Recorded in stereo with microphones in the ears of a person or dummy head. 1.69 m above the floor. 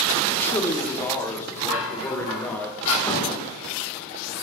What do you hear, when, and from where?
0.3 s a man speaking: 15° left (ahead or behind), 1.0 m; by 2.7 s 10° left (ahead or behind), 2 m
1.7 s dishes clattering: 70° left (ahead or behind), 3.5 m
3.0 s an explosion: 20° left (ahead or behind), 2 m